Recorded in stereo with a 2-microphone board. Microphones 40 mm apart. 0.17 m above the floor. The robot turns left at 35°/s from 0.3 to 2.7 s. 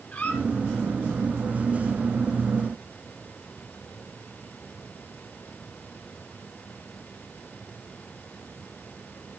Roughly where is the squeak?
Left.